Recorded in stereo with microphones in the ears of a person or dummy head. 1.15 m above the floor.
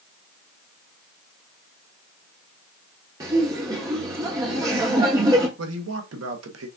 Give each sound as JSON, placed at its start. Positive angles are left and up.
{"t": 3.2, "sound": "laughter", "side_deg": -15, "distance_m": 0.7}
{"t": 5.6, "sound": "a man speaking", "side_deg": -80, "distance_m": 0.7}